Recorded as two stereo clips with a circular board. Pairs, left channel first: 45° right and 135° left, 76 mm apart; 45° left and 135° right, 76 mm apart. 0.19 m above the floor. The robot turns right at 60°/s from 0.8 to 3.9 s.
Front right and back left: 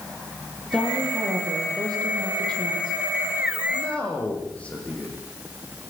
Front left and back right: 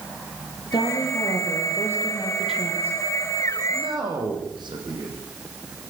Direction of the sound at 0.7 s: 40° left.